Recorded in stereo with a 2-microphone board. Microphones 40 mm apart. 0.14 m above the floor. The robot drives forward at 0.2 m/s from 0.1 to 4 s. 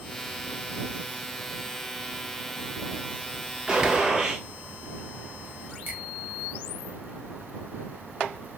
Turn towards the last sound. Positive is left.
turn(degrees=-40)  # may be behind; listen again after turning